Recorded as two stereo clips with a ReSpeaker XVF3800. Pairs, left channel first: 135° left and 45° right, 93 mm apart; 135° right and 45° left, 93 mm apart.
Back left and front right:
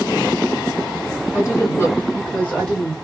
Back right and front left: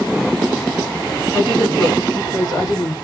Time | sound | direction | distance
1.3 | a woman speaking | 165° left | 2.0 m